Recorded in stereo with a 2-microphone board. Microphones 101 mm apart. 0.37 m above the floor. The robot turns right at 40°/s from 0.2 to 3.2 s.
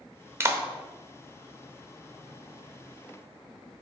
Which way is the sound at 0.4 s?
25° right (ahead or behind).